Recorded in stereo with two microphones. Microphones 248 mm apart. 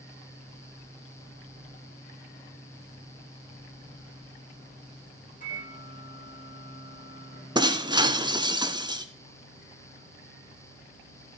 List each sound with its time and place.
5.4 s a microwave: 30° left (ahead or behind), 10 m
7.5 s breaking glass: 20° right (ahead or behind), 0.9 m